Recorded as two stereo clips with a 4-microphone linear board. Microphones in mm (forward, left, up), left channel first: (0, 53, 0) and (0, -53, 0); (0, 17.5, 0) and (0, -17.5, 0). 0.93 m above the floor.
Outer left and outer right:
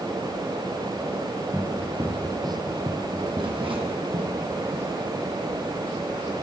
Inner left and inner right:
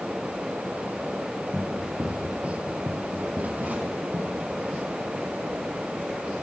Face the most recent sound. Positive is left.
turn(degrees=-70)  # may be behind; listen again after turning